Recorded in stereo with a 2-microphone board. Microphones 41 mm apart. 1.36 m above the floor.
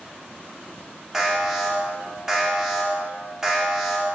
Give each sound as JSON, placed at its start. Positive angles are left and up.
{"t": 1.1, "sound": "an alarm", "side_deg": -10, "distance_m": 1.1}